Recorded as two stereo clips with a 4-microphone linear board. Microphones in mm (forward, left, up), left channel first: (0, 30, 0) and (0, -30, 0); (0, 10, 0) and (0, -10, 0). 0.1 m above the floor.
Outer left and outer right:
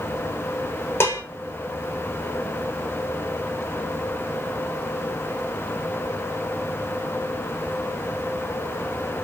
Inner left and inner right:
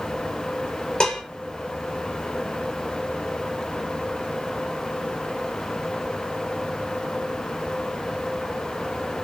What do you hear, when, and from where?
1.0 s dishes clattering: 45° left (ahead or behind), 1.2 m